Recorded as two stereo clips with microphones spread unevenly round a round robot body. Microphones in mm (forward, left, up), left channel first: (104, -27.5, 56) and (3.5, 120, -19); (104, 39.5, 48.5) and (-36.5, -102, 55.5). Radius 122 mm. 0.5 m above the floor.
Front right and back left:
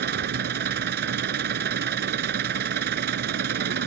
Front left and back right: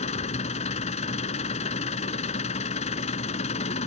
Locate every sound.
0.0 s an engine running: 105° left